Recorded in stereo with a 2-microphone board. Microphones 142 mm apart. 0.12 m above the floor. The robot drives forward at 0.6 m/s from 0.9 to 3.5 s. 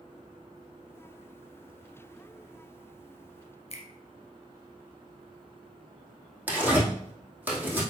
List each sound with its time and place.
3.7 s a finger snap: 45° left (ahead or behind), 1.9 m
6.5 s tearing paper: 10° right (ahead or behind), 2.5 m